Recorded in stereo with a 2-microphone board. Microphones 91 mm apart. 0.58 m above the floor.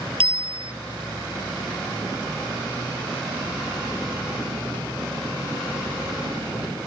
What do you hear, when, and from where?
0.2 s a bicycle bell: 85° right